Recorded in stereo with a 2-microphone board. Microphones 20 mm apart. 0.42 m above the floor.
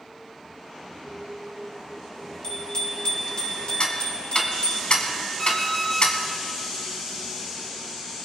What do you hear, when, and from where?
2.4 s a bicycle bell: 45° left (ahead or behind), 6.5 m; by 4.8 s 75° left (ahead or behind), 5.5 m
3.8 s ticking: 55° left (ahead or behind), 1.7 m
5.4 s an alarm clock: 15° left (ahead or behind), 7.5 m